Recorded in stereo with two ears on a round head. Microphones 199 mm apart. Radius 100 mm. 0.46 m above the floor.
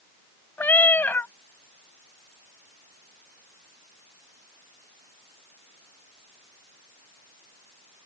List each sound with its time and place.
0.6 s a cat meowing: 10° left (ahead or behind)